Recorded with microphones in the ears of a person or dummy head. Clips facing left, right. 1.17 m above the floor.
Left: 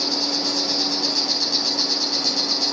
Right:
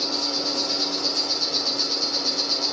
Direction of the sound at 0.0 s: 70° left (ahead or behind).